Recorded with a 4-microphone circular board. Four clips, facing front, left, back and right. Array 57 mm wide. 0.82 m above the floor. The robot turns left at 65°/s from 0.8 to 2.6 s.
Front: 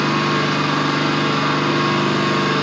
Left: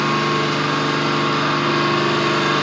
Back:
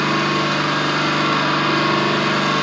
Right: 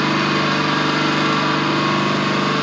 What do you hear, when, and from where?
0.0 s an engine running: 120° right, 2 m; by 2.6 s 125° left, 2 m